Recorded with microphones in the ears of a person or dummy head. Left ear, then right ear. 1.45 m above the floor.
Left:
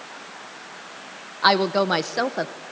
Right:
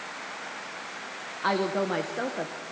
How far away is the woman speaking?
About 0.8 m.